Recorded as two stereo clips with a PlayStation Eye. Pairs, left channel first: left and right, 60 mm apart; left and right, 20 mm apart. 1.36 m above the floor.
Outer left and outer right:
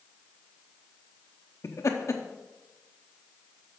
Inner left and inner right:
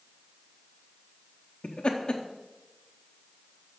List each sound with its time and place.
1.6 s laughter: 55° left (ahead or behind), 0.7 m